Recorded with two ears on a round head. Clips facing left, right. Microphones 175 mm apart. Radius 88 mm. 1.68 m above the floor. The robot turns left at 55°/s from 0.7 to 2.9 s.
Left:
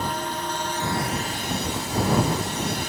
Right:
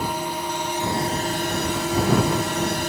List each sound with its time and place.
0.0 s a drone: 10° right; by 2.9 s 130° right